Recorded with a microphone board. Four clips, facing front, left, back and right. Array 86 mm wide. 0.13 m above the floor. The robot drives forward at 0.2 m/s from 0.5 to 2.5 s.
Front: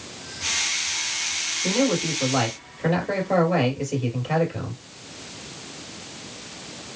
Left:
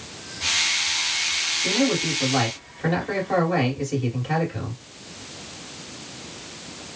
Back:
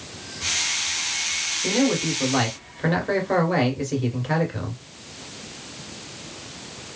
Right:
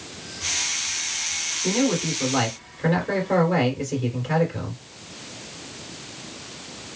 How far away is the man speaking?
About 1.7 m.